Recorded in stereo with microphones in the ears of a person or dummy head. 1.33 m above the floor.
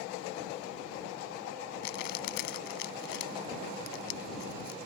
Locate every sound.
1.8 s crumpling: 60° left (ahead or behind)